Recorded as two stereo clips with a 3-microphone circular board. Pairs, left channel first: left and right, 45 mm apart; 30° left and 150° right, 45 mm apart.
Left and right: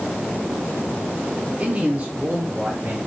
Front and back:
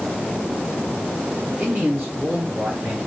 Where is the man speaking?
145° right, 2.5 m; by 3.0 s 135° right, 3 m.